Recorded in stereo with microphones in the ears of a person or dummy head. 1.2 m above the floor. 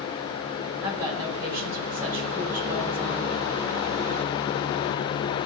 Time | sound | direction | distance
0.8 | a woman speaking | 30° right (ahead or behind) | 5.5 m